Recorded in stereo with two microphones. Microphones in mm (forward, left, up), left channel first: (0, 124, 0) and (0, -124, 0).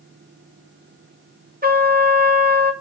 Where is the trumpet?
35° right (ahead or behind), 1.4 m.